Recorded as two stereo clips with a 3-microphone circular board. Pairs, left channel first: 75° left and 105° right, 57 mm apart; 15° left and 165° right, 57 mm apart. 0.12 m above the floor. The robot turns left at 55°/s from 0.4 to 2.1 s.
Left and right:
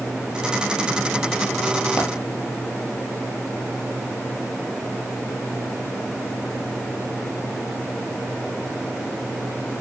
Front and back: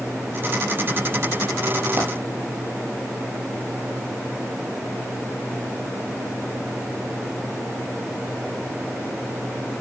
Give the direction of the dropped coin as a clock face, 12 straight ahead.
7 o'clock.